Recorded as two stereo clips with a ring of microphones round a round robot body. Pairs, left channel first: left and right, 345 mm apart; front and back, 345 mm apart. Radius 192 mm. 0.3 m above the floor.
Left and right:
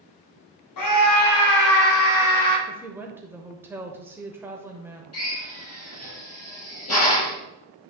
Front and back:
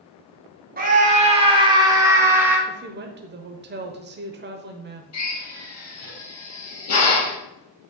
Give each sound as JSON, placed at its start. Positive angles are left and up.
{"t": 0.8, "sound": "a scream", "azimuth_deg": 120, "distance_m": 2.5}
{"t": 2.7, "sound": "a woman speaking", "azimuth_deg": -170, "distance_m": 1.0}
{"t": 5.1, "sound": "a drill", "azimuth_deg": 45, "distance_m": 4.0}